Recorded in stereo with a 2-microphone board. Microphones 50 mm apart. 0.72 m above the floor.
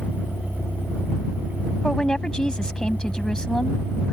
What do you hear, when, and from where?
0.0 s a vehicle: 30° left (ahead or behind); by 4.1 s 40° left (ahead or behind)
1.8 s a woman speaking: 15° left (ahead or behind)